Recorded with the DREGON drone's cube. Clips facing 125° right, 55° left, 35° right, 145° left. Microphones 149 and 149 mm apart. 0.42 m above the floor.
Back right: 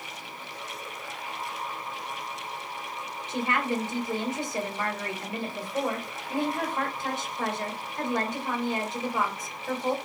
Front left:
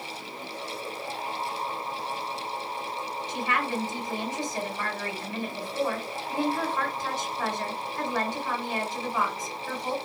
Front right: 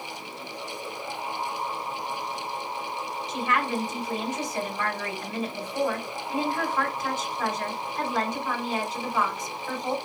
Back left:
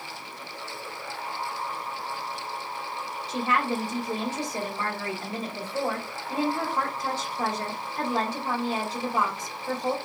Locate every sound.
3.3 s a woman speaking: 175° right, 1.8 m